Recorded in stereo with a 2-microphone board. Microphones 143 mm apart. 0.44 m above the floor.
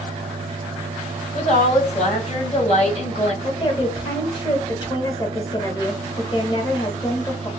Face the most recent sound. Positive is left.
turn(degrees=30)  # may be behind; listen again after turning